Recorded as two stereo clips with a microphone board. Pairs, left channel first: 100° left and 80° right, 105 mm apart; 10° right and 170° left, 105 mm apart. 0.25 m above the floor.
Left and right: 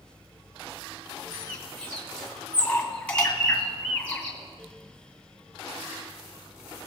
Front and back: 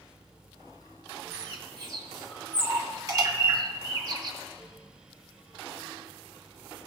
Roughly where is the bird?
Behind.